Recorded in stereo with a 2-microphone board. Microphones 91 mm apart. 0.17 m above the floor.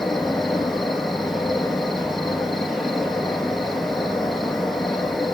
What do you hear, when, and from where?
0.0 s an insect: centre (ahead or behind), 2.5 m